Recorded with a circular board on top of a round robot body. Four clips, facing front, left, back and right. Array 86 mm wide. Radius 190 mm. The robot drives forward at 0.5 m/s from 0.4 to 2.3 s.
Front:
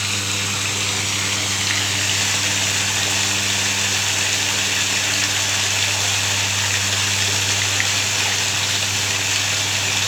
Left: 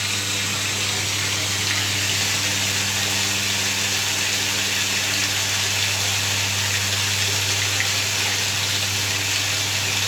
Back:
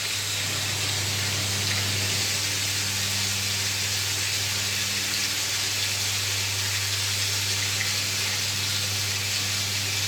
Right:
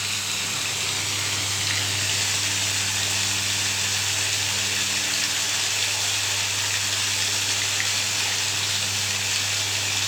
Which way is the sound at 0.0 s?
5° left.